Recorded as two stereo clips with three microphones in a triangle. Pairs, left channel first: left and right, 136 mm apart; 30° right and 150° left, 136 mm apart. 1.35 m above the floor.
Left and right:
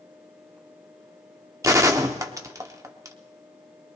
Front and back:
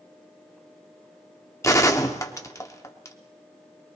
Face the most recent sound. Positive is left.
turn(degrees=-60)